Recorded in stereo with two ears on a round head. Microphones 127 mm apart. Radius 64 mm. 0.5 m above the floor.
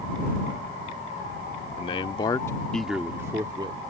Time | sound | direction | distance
1.8 | a man speaking | 40° left (ahead or behind) | ?